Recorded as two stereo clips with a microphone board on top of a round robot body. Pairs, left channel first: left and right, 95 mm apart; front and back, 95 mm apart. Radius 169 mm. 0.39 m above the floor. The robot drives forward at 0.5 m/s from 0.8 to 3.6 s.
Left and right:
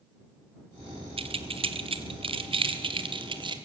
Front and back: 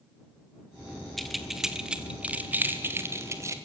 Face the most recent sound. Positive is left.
turn(degrees=-120)